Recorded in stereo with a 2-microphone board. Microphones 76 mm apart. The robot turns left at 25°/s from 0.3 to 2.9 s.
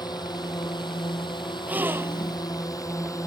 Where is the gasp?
20° right (ahead or behind); by 2.4 s 40° right (ahead or behind).